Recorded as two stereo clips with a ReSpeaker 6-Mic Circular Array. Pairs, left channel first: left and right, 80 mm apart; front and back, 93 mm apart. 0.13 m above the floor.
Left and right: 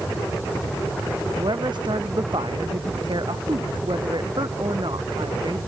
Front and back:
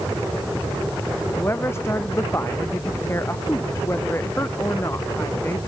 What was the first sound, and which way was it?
A woman speaking, 65° right.